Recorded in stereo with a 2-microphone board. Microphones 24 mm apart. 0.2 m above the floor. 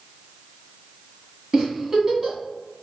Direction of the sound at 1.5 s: 20° right (ahead or behind).